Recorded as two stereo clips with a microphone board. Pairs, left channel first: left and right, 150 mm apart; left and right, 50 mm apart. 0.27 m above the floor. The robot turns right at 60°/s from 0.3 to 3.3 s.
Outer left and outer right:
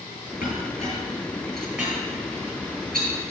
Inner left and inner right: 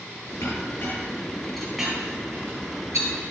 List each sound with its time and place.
0.4 s a clink: 70° left (ahead or behind), 4 m; by 3.1 s 75° right (ahead or behind), 4 m